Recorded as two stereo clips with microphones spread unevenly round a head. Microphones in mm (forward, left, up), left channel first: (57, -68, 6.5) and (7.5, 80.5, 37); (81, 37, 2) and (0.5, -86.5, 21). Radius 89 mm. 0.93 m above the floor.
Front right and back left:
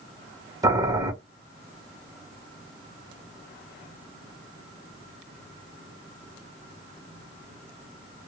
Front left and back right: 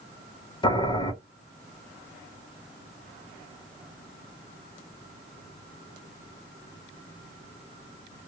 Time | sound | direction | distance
0.6 | boiling | 40° left | 0.9 m